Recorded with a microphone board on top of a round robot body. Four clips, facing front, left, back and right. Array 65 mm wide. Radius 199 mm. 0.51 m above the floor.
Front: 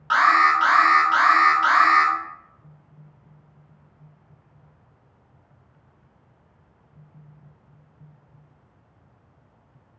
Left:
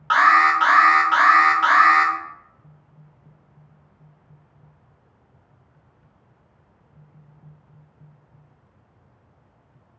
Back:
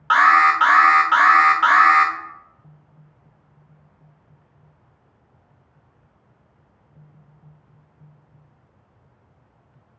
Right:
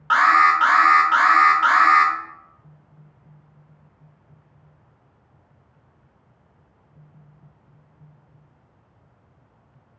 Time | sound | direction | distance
0.1 | an alarm | 175° left | 1.1 m